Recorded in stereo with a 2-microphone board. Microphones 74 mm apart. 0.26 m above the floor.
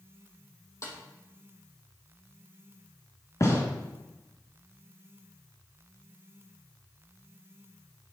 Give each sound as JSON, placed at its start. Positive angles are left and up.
{"t": 0.8, "sound": "a snare drum", "side_deg": 40, "distance_m": 2.5}
{"t": 3.4, "sound": "a gunshot", "side_deg": 45, "distance_m": 3.5}